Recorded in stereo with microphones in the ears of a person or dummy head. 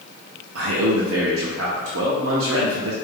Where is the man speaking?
75° right (ahead or behind), 0.7 m.